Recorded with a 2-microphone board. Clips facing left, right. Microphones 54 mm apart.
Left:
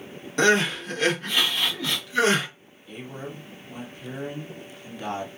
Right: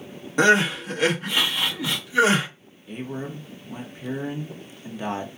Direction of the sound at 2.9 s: 20° right (ahead or behind).